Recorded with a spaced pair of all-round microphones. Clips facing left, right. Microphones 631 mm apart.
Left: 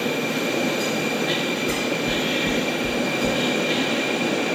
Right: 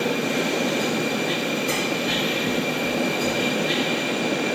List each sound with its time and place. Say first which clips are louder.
1.7 s knocking: left 1 dB; 60° left (ahead or behind), 0.8 m